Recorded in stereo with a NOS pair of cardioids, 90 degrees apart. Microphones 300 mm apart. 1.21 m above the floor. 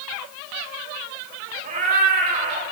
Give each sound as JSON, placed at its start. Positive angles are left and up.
{"t": 1.6, "sound": "a cat meowing", "azimuth_deg": -25, "distance_m": 1.8}